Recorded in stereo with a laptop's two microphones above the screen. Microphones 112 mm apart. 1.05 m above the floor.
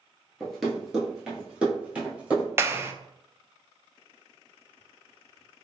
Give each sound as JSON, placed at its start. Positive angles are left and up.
{"t": 0.4, "sound": "running footsteps", "side_deg": 0, "distance_m": 1.1}
{"t": 2.6, "sound": "a clap", "side_deg": -20, "distance_m": 0.5}